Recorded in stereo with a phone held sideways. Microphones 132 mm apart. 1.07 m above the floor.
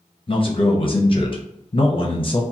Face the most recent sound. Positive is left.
turn(degrees=45)  # may be behind; listen again after turning